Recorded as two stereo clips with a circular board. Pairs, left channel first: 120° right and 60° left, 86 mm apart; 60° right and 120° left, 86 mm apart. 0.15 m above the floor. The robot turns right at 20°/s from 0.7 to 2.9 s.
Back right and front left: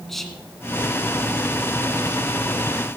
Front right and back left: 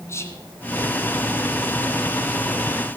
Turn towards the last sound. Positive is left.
turn(degrees=10)